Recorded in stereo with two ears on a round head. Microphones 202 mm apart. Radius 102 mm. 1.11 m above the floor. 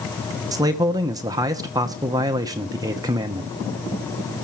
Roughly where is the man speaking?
Centre.